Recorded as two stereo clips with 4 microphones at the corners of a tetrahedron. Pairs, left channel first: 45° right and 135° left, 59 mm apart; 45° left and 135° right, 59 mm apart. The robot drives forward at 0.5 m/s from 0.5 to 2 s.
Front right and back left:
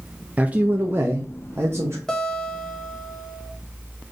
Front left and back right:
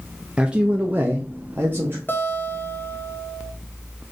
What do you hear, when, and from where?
0.4 s a man speaking: 170° left, 0.5 m; by 2.0 s straight behind, 1.1 m
2.1 s a guitar: 30° left, 0.9 m